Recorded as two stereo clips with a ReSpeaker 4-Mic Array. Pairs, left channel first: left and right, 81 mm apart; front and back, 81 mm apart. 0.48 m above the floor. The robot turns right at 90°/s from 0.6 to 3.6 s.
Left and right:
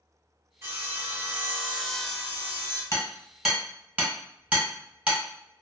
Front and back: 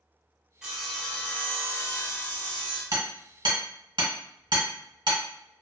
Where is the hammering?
135° left, 1.2 m; by 5.2 s 160° right, 1.2 m.